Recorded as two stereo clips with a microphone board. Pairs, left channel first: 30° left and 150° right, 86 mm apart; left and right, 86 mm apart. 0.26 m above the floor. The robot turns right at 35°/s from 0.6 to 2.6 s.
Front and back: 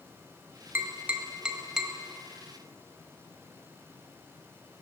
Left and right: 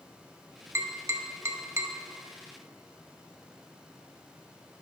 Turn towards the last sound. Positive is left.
turn(degrees=-40)